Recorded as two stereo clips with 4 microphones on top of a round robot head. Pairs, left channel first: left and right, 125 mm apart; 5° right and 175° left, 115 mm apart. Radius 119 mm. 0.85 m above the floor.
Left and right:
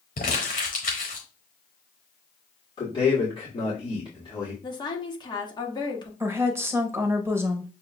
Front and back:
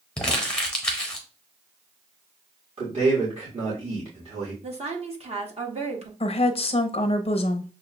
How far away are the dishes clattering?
I don't hear dishes clattering.